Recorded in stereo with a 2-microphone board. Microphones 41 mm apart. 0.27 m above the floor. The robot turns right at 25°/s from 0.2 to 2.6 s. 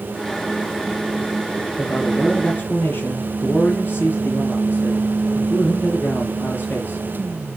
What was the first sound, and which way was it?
A man speaking, 40° left (ahead or behind).